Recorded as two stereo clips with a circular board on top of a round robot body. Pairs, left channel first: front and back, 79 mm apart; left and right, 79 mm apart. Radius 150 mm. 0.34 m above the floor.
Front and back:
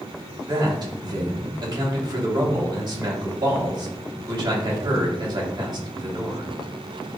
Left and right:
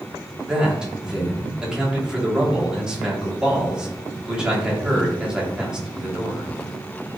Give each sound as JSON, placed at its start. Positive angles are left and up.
{"t": 0.5, "sound": "a man speaking", "azimuth_deg": -170, "distance_m": 2.5}